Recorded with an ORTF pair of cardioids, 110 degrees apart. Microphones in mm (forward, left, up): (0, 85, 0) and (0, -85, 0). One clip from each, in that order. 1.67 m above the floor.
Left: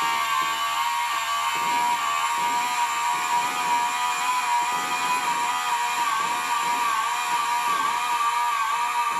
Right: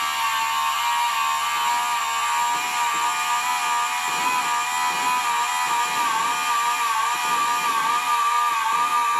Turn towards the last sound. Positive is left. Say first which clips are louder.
# even
turn(degrees=-35)